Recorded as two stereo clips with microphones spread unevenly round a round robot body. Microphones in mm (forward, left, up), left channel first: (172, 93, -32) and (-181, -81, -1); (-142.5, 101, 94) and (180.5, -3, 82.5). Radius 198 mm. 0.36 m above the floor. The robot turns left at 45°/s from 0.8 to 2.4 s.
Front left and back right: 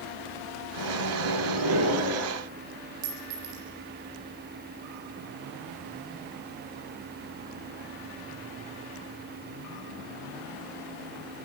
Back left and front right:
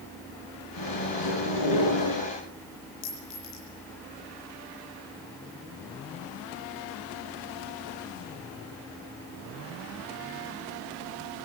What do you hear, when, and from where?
0.8 s a microwave: 160° right, 6 m; by 2.3 s 135° left, 6 m
3.0 s a clink: 160° right, 9 m